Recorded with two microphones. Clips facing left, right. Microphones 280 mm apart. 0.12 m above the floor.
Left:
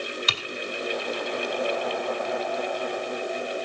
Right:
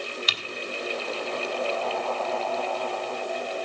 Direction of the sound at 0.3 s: 60° left (ahead or behind).